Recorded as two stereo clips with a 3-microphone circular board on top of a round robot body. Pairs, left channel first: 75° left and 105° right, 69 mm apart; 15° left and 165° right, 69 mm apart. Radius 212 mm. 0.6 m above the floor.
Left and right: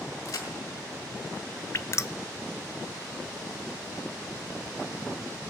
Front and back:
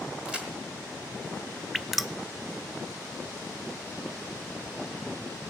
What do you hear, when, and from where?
0.2 s a crack: 120° left, 1.4 m
1.7 s dripping: 105° left, 0.7 m